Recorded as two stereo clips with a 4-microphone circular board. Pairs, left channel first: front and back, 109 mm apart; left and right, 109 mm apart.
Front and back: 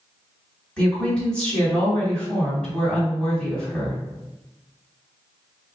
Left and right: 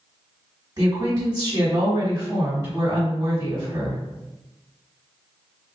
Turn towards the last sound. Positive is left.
turn(degrees=-75)